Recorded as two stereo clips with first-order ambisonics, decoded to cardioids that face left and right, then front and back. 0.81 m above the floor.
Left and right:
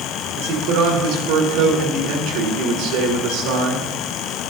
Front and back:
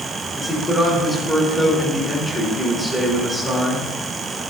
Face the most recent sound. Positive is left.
turn(degrees=-85)